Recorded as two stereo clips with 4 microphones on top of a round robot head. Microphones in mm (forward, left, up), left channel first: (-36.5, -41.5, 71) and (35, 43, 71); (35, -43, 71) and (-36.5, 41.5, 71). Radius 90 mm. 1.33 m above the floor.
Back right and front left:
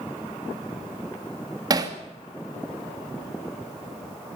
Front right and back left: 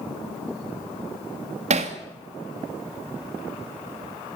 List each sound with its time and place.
1.7 s hammering: 105° left, 2.5 m